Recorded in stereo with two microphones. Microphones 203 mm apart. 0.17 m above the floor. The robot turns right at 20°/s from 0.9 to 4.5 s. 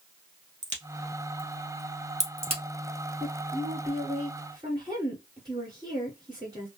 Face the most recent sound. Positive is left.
turn(degrees=-25)  # may be behind; listen again after turning